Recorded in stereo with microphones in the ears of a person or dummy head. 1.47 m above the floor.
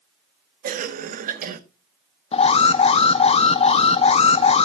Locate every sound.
0.6 s a cough: 40° right (ahead or behind), 1.3 m
2.3 s an alarm: 35° left (ahead or behind), 0.7 m